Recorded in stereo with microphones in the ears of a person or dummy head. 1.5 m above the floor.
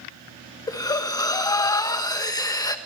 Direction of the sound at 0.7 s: 20° left (ahead or behind).